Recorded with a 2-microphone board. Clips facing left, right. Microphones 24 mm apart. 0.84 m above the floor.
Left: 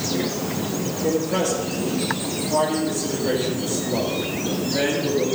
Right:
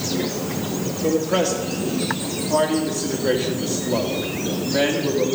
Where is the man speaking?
35° right (ahead or behind), 2 m.